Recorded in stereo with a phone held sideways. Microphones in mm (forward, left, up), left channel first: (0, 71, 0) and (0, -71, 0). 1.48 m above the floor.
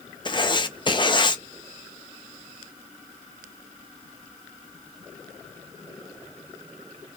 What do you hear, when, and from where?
0.2 s writing: 35° left (ahead or behind), 0.5 m